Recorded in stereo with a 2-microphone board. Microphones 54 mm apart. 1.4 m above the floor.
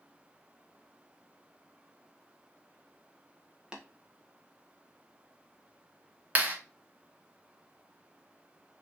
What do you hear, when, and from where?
3.7 s tapping: 15° right (ahead or behind), 1.2 m
6.3 s a clap: 35° right (ahead or behind), 1.3 m